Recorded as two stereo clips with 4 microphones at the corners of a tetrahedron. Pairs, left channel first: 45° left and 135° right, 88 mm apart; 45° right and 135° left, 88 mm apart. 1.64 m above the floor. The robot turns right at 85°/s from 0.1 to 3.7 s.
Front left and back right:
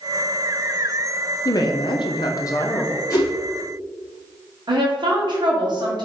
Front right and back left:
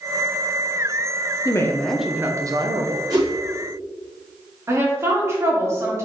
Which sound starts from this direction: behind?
A woman speaking, at 4.7 s.